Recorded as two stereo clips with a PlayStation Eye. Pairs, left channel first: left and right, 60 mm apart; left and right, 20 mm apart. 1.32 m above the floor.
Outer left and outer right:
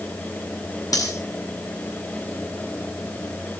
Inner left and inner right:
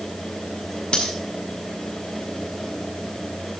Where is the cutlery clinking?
75° left (ahead or behind), 8 m.